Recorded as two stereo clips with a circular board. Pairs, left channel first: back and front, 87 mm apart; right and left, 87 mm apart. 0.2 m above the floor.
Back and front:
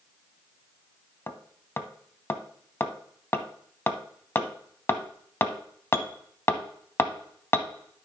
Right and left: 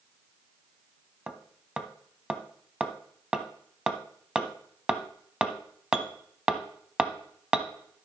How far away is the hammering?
About 0.7 m.